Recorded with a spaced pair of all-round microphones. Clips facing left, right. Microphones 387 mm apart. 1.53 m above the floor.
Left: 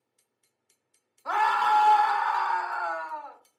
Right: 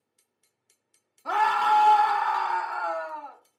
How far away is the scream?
About 0.6 m.